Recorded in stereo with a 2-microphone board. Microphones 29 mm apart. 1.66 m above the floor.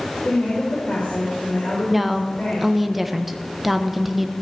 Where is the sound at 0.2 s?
60° left (ahead or behind), 5 m.